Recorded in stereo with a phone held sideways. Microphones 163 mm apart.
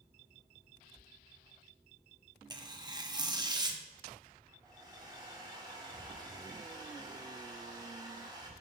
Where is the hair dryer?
25° right (ahead or behind), 1.1 m.